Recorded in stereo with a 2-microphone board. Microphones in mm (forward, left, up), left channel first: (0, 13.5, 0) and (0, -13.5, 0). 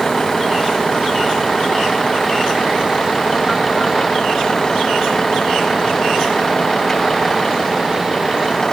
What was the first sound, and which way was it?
A vehicle, 15° left (ahead or behind).